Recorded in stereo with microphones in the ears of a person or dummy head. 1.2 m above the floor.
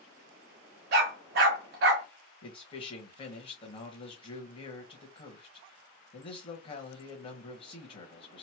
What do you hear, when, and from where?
0.9 s a dog barking: 55° right (ahead or behind), 1.0 m
2.4 s a man speaking: 30° left (ahead or behind), 0.9 m